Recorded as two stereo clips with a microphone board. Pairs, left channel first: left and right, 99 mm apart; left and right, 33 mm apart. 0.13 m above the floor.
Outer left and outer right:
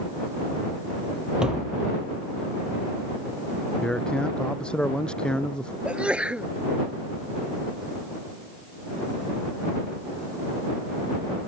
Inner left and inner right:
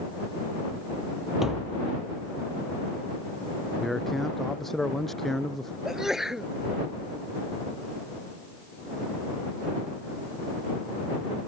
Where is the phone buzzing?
I don't hear a phone buzzing.